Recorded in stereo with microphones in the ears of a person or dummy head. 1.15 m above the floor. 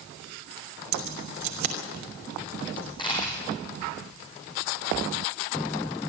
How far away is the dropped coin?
About 4.5 m.